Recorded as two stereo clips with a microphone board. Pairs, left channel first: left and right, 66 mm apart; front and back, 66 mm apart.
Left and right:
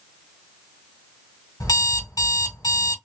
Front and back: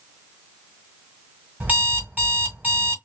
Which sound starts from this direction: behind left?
An alarm clock, at 1.6 s.